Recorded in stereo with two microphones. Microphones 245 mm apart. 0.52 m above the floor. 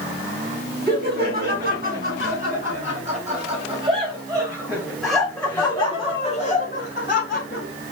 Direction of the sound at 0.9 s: 40° right (ahead or behind).